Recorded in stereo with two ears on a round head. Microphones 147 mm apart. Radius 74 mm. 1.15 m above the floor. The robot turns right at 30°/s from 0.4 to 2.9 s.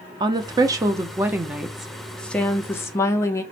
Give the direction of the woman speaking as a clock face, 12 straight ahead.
2 o'clock.